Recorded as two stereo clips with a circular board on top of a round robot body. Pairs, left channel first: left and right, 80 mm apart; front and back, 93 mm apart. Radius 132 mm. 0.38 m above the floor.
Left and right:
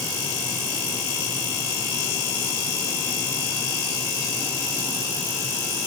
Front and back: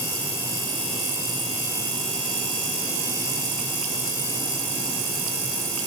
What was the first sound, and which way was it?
Only background noise.